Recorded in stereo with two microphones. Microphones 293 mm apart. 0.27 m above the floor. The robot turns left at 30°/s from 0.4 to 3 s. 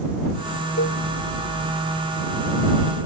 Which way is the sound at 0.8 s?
60° left (ahead or behind).